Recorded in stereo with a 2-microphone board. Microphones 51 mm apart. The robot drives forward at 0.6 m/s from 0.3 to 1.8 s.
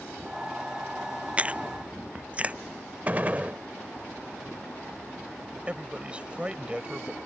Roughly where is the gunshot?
Right.